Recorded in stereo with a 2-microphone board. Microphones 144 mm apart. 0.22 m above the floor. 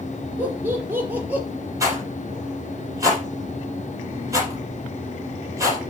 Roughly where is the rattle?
Right.